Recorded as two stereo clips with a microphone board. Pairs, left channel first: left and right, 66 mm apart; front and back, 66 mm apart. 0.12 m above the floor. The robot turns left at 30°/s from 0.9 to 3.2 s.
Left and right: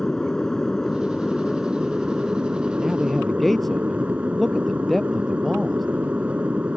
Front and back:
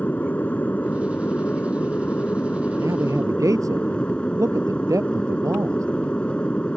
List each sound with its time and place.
0.0 s an aircraft: 20° left; by 6.8 s 50° right
2.7 s a man speaking: 170° right; by 5.9 s 175° left